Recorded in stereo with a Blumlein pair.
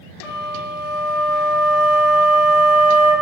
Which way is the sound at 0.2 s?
35° left.